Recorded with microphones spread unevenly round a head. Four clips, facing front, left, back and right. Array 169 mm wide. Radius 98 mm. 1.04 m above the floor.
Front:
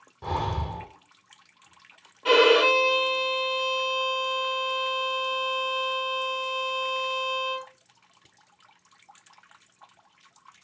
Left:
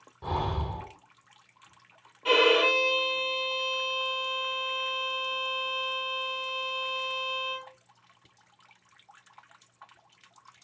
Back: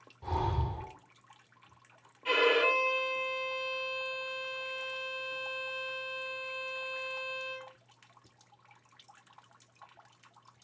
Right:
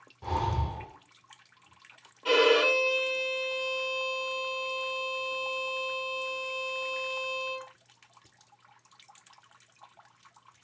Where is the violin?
Straight ahead, 1.9 m.